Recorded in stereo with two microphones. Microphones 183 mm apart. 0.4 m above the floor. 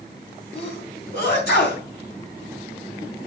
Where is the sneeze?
65° left (ahead or behind), 3.5 m.